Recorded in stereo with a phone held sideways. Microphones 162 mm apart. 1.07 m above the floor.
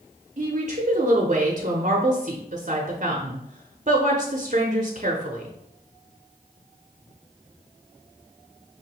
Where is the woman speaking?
45° right (ahead or behind), 0.7 m.